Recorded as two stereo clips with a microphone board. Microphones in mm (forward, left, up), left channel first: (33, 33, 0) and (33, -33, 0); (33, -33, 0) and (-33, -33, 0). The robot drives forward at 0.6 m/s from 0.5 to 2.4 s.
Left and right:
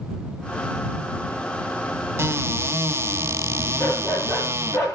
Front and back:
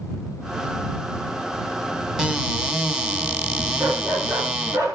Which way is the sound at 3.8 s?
145° left.